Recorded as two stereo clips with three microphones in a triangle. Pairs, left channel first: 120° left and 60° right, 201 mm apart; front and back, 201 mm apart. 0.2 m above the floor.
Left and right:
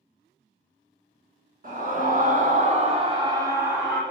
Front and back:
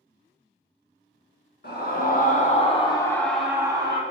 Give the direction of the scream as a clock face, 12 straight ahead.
1 o'clock.